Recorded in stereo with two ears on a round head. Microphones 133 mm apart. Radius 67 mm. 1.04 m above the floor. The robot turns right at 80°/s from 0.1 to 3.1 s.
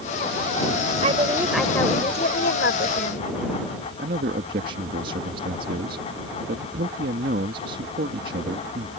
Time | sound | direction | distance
1.0 | a woman speaking | 45° right | ?
4.0 | a man speaking | 65° right (ahead or behind) | ?